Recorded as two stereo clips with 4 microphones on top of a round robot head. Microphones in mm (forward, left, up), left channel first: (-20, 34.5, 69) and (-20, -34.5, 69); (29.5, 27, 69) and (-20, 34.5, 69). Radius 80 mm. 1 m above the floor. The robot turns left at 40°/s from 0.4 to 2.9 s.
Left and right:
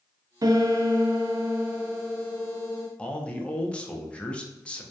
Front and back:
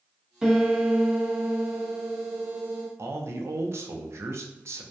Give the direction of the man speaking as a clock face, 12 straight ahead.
7 o'clock.